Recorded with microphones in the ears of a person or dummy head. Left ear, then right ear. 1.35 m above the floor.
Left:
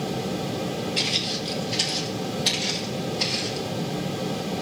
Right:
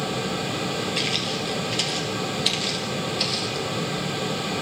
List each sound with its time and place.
1.0 s footsteps: 15° right (ahead or behind), 1.6 m; by 3.6 s 35° right (ahead or behind), 3 m